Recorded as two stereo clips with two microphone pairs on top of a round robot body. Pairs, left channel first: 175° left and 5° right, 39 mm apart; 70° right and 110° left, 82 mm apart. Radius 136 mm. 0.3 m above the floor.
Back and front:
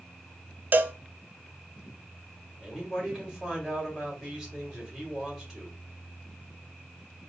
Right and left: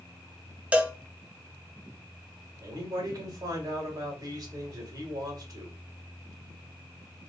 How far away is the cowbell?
About 0.7 m.